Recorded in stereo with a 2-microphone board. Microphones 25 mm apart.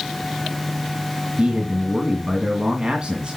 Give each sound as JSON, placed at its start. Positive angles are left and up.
{"t": 1.4, "sound": "a man speaking", "side_deg": -35, "distance_m": 2.0}